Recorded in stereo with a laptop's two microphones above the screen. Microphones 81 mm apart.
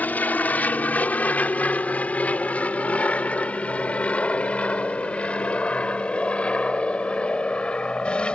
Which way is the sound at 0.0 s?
20° left (ahead or behind).